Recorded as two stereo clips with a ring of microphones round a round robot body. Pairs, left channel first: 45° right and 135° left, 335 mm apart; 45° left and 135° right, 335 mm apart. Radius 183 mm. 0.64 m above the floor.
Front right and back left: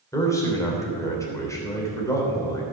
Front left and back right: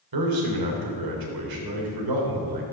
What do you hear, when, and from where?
0.1 s a man speaking: 125° right, 3 m